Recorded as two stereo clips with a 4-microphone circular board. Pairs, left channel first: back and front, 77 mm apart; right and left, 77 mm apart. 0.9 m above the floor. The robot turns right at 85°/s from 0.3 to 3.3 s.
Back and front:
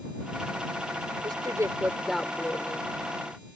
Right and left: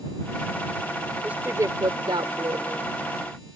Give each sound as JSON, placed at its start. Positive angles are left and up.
{"t": 1.2, "sound": "a woman speaking", "azimuth_deg": 15}